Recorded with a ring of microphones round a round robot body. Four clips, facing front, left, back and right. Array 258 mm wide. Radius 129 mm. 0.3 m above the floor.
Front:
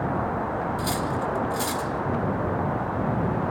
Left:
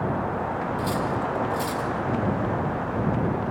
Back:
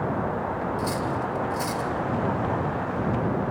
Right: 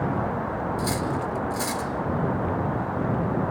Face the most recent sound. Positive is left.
turn(degrees=-40)